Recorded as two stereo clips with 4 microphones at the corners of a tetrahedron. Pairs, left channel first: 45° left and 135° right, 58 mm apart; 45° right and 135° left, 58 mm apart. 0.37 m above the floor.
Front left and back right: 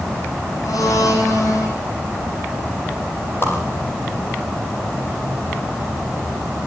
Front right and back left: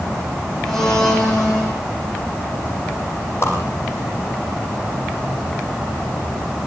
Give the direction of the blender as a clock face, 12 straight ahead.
11 o'clock.